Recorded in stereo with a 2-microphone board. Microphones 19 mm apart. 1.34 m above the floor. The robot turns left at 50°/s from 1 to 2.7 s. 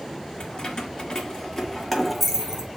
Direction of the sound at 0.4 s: 45° left (ahead or behind).